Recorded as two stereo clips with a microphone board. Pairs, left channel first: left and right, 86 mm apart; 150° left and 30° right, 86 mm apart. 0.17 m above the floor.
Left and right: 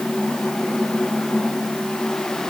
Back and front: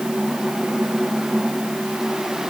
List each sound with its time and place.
Only background noise.